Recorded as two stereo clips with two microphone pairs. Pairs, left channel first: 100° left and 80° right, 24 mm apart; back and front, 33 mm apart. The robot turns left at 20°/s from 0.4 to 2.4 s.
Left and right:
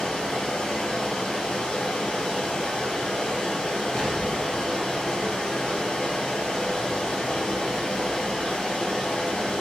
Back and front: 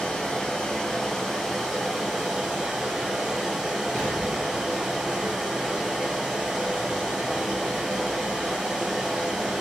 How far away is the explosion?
About 1.7 m.